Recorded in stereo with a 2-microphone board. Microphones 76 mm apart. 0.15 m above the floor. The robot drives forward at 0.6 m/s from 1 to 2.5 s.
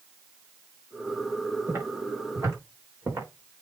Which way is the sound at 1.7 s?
35° right (ahead or behind).